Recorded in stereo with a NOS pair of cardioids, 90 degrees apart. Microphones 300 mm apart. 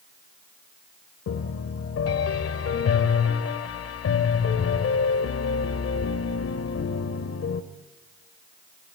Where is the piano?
55° left, 1.9 m.